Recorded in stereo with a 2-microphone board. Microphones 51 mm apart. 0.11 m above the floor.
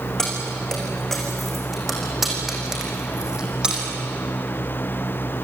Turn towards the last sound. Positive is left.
turn(degrees=-20)  # may be behind; listen again after turning